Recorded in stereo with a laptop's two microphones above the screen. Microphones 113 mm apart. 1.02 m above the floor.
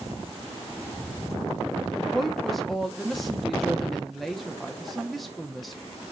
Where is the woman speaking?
Centre (ahead or behind), 0.6 m.